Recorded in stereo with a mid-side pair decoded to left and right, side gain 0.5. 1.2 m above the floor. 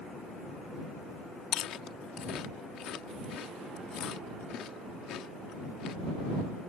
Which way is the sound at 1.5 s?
65° left.